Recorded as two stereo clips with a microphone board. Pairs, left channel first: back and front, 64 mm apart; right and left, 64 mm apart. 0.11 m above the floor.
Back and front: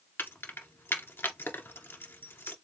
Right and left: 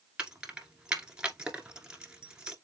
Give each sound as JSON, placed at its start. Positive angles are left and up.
{"t": 0.2, "sound": "keys jangling", "azimuth_deg": 160, "distance_m": 1.2}